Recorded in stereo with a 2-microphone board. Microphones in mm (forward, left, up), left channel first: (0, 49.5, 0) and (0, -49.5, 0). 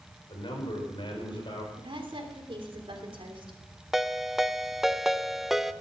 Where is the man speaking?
60° left (ahead or behind), 5 m.